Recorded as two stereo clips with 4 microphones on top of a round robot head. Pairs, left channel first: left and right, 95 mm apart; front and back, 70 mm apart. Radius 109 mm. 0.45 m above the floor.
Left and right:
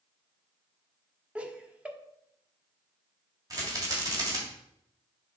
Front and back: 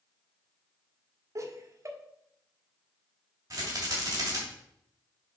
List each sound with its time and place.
1.4 s laughter: 165° right, 1.4 m
3.5 s a rattle: 140° right, 3 m